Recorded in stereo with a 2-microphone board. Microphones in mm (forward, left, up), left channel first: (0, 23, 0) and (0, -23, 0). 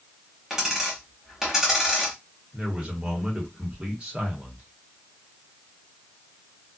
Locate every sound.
0.5 s a dropped coin: 10° right (ahead or behind), 1.2 m
2.5 s a man speaking: 20° right (ahead or behind), 1.3 m